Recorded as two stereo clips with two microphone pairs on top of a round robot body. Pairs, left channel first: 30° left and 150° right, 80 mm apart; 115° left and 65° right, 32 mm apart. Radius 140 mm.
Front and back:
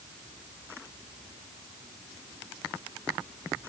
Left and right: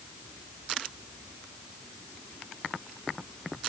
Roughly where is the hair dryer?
I don't hear a hair dryer.